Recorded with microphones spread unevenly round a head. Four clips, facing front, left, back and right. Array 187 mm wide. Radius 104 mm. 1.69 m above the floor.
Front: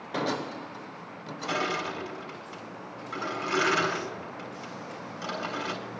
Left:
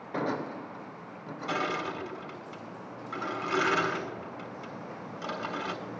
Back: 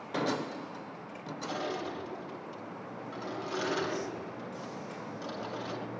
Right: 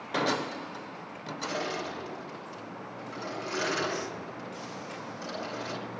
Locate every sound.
1.5 s crushing: 20° left, 7 m